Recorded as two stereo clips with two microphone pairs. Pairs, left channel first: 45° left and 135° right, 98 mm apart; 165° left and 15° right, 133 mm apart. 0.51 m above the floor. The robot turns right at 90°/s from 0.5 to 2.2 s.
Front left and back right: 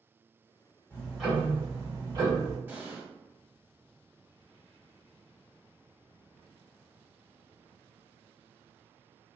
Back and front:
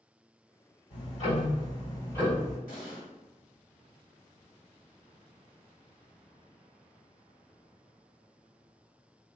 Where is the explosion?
155° left, 0.8 m.